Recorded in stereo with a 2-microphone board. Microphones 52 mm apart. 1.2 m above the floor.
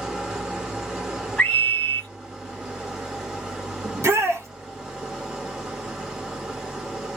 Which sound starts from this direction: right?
A shout, at 3.8 s.